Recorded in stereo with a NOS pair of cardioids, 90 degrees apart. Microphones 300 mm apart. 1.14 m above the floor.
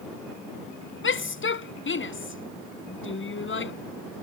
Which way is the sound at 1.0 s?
40° left.